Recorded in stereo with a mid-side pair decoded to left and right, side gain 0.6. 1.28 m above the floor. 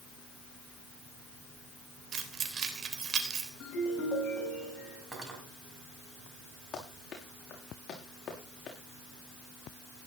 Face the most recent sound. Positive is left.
turn(degrees=35)